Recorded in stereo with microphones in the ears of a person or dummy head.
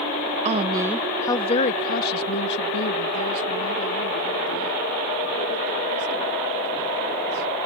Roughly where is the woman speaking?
Right.